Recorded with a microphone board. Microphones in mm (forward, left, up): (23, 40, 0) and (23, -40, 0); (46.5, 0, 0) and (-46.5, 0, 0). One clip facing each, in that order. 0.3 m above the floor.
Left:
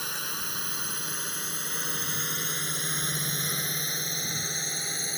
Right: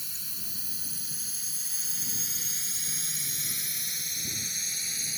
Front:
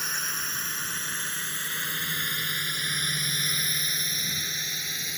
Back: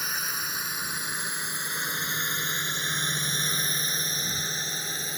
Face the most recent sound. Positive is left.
turn(degrees=130)